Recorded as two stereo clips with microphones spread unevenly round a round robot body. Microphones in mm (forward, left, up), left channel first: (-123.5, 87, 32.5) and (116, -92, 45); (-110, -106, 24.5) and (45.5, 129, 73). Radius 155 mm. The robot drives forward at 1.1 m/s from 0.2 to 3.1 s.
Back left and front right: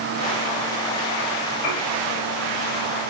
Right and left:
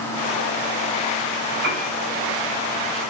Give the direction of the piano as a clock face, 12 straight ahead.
8 o'clock.